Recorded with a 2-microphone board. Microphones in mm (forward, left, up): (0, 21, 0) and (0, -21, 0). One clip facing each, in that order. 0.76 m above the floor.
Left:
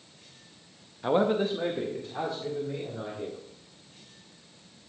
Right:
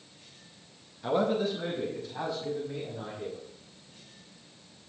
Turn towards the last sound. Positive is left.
turn(degrees=40)  # may be behind; listen again after turning